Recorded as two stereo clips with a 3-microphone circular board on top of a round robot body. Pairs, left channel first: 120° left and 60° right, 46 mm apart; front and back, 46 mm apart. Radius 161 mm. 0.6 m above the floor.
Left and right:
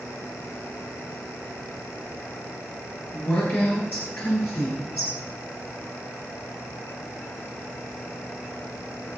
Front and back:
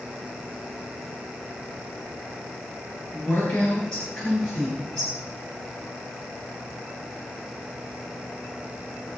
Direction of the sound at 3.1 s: 75° left.